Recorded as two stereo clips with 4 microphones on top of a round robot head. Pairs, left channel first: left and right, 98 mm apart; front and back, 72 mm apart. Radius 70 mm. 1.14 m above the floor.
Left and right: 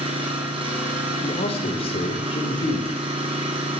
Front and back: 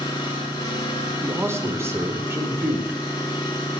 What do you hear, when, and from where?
0.0 s an engine running: 60° right, 8 m
1.2 s a man speaking: 130° left, 5 m